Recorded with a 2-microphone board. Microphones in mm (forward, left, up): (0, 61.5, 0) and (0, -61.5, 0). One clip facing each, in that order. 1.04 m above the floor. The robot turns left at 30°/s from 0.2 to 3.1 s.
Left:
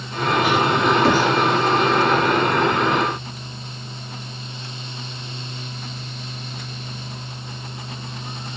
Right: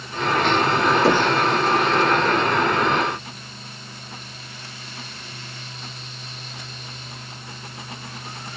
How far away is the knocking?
About 1.4 m.